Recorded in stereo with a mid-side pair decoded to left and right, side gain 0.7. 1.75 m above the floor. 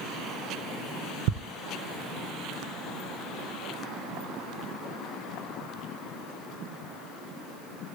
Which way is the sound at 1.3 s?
70° right.